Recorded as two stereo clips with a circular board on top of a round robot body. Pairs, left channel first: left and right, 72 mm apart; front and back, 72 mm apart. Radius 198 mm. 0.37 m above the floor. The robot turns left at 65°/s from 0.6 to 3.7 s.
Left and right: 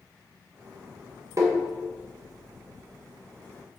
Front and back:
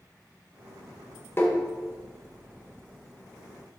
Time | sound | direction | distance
1.4 | tapping | 55° right | 3 m